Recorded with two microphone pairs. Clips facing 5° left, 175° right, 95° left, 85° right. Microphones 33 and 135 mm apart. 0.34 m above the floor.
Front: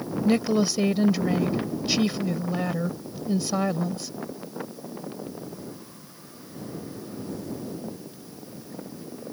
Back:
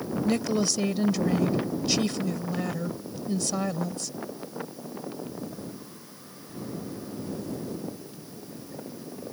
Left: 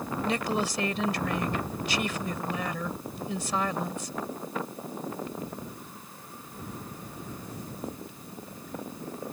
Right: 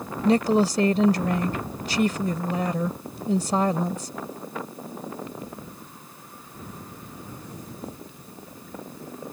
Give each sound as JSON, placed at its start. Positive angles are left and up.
{"t": 0.2, "sound": "a woman speaking", "azimuth_deg": -55}